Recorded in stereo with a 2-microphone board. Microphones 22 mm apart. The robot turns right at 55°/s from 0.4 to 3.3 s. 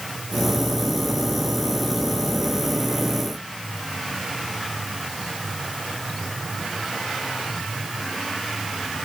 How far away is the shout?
I don't hear a shout.